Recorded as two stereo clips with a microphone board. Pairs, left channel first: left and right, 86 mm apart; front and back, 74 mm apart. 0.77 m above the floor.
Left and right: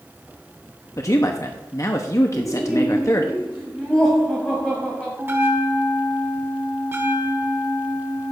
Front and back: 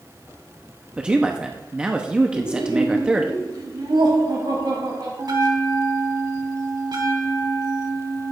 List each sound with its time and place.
1.0 s a man speaking: 110° left, 0.9 m
2.3 s laughter: 175° left, 5.5 m
5.2 s a bell: 155° right, 1.6 m